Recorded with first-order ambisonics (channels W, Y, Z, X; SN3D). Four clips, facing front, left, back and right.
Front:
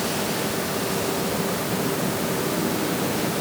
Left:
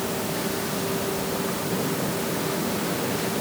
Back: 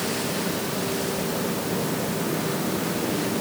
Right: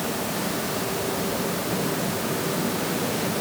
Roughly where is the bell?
I don't hear a bell.